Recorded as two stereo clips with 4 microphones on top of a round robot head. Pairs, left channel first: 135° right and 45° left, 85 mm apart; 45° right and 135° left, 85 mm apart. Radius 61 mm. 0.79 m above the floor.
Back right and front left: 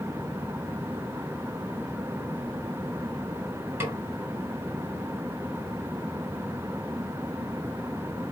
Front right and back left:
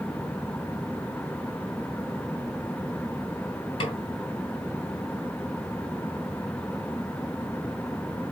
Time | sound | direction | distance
3.8 | a snare drum | 20° right | 2.5 m